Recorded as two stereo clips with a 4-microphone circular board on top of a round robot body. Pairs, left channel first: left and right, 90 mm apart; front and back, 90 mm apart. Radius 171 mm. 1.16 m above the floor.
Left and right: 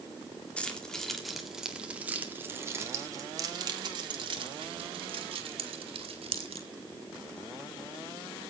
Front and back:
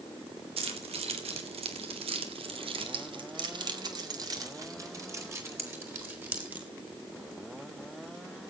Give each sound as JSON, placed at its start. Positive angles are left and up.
{"t": 0.6, "sound": "keys jangling", "azimuth_deg": 170, "distance_m": 2.0}